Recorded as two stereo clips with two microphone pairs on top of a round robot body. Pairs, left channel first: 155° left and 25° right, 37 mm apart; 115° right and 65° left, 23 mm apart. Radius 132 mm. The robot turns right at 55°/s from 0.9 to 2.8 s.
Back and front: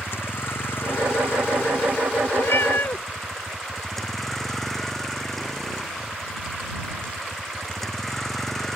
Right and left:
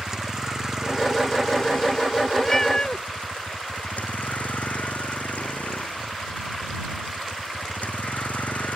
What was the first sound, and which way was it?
A vehicle, 130° left.